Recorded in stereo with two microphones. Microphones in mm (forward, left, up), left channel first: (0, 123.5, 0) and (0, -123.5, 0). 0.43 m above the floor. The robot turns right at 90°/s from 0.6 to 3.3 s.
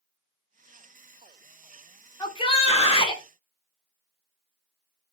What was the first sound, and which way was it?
A shout, 15° left (ahead or behind).